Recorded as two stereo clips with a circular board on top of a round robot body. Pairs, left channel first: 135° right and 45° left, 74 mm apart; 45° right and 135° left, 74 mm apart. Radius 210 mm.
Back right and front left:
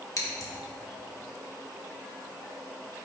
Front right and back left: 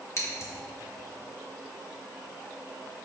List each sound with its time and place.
0.2 s scissors: 90° right, 1.7 m